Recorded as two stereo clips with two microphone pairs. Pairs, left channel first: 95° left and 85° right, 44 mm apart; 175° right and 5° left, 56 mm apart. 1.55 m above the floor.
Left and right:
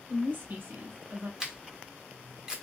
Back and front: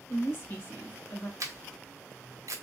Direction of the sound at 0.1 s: 125° right.